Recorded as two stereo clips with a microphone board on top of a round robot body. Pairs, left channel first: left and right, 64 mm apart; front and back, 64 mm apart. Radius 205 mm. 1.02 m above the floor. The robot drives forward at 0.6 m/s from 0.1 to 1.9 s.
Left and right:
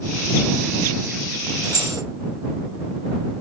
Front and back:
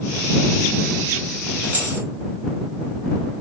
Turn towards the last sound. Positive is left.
turn(degrees=-120)